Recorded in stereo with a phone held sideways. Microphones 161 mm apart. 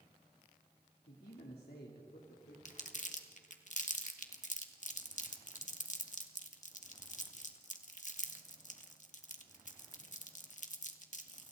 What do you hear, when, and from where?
1.1 s a man speaking: 85° left, 3.5 m
2.6 s crumpling: 50° left (ahead or behind), 1.9 m